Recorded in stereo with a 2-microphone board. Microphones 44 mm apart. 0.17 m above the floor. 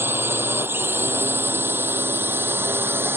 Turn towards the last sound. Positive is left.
turn(degrees=-60)  # may be behind; listen again after turning